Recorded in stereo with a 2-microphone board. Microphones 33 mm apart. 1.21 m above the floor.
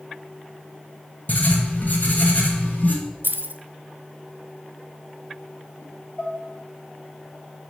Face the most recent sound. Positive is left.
turn(degrees=45)  # may be behind; listen again after turning